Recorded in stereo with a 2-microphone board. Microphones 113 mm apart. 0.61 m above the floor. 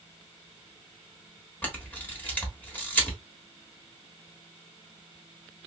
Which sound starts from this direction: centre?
A camera shutter, at 1.6 s.